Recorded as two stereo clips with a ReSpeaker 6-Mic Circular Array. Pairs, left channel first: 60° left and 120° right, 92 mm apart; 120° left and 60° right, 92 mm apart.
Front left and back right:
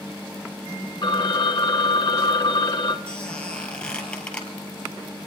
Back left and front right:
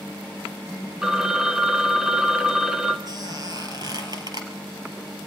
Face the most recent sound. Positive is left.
turn(degrees=-20)